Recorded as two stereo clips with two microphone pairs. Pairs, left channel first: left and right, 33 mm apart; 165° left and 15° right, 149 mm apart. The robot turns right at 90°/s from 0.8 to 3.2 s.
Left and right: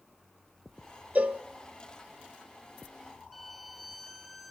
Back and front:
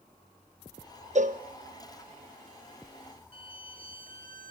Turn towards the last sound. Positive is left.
turn(degrees=5)